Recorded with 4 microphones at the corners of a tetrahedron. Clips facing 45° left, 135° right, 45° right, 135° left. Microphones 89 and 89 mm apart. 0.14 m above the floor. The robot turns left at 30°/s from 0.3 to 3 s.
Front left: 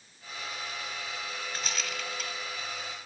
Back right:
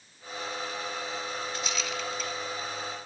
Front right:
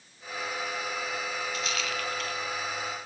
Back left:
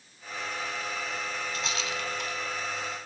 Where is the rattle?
85° left, 1.7 m; by 2.4 s 60° left, 1.7 m.